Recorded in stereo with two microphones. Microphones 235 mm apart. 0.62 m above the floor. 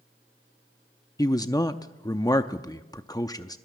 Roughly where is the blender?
I don't hear a blender.